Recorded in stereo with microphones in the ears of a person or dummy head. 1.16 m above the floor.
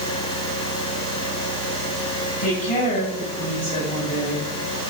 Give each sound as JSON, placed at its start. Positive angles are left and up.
{"t": 2.4, "sound": "a woman speaking", "side_deg": 40, "distance_m": 6.5}